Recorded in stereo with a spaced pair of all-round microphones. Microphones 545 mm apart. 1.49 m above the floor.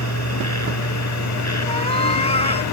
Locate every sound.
0.0 s a machine running: 30° left (ahead or behind)
1.7 s a cat meowing: 10° left (ahead or behind)